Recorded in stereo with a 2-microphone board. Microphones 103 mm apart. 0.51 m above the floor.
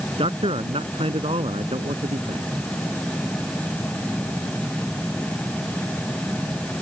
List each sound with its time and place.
0.2 s a man speaking: 70° right (ahead or behind)